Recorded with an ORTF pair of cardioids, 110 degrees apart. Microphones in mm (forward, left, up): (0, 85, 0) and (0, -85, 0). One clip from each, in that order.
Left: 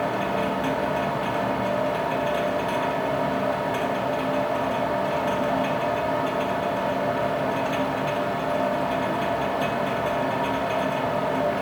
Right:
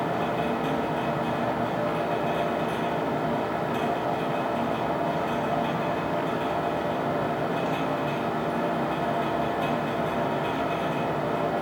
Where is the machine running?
50° left, 2.5 m.